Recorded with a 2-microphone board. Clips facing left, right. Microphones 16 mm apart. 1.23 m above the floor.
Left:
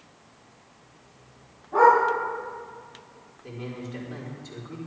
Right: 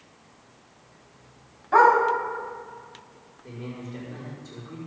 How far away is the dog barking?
About 3.5 m.